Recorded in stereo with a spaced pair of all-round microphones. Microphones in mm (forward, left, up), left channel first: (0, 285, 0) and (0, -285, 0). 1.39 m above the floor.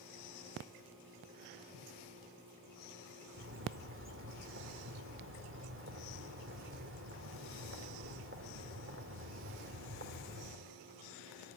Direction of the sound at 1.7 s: 75° left (ahead or behind).